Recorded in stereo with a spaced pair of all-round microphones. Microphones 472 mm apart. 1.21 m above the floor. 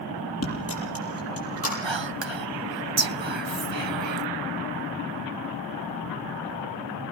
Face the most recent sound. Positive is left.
turn(degrees=-65)  # may be behind; listen again after turning